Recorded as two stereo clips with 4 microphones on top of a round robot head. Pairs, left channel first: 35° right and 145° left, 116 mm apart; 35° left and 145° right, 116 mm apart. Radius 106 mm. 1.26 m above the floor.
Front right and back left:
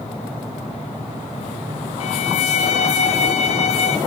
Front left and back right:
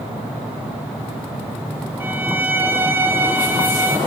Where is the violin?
70° right, 1.6 m.